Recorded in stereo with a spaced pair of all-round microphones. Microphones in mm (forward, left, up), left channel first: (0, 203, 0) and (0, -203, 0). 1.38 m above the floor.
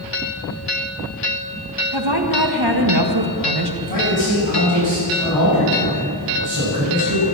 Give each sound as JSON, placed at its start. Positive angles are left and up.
{"t": 1.9, "sound": "a woman speaking", "side_deg": -65, "distance_m": 1.7}
{"t": 3.8, "sound": "a man speaking", "side_deg": -50, "distance_m": 7.0}